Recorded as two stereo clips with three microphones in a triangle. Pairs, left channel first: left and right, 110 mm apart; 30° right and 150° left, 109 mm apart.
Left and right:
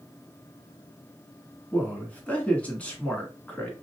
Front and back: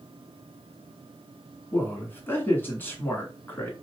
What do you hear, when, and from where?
1.7 s a man speaking: 25° left, 1.4 m